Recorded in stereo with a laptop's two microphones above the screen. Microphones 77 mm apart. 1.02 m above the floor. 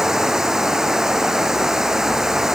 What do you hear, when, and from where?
0.0 s running water: 5° right (ahead or behind)